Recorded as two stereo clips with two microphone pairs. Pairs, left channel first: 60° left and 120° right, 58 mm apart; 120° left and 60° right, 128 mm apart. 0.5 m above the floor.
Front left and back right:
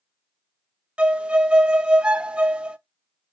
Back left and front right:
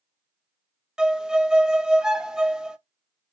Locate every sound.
1.0 s a violin: 125° right, 0.5 m